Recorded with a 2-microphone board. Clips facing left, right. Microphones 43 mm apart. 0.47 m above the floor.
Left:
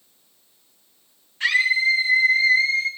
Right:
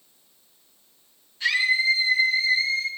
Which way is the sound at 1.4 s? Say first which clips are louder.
Left 3 dB; 50° left (ahead or behind).